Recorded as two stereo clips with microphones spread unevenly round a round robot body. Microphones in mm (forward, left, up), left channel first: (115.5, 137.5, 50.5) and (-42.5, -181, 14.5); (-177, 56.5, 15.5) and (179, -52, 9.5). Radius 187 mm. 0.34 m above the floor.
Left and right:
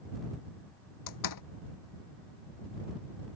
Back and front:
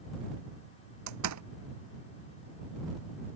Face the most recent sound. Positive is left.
turn(degrees=30)